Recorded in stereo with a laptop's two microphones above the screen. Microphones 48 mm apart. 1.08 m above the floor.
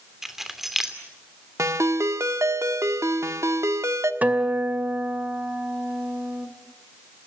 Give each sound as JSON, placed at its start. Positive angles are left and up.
{"t": 0.2, "sound": "keys jangling", "side_deg": -5, "distance_m": 2.5}
{"t": 1.6, "sound": "a ringtone", "side_deg": -75, "distance_m": 1.4}
{"t": 4.2, "sound": "a guitar", "side_deg": -30, "distance_m": 2.5}